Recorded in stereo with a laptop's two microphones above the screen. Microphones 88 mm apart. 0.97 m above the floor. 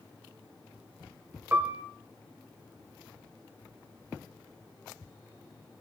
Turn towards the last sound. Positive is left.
turn(degrees=-25)  # may be behind; listen again after turning